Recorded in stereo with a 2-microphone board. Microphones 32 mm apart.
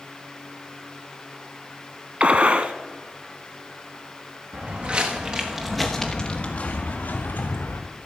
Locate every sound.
2.2 s a gunshot: 40° right (ahead or behind), 0.7 m
4.5 s footsteps: 45° right (ahead or behind), 2.5 m; by 7.8 s 70° left (ahead or behind), 3.5 m